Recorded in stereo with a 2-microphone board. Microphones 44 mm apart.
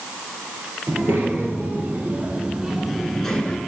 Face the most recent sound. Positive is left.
turn(degrees=20)  # may be behind; listen again after turning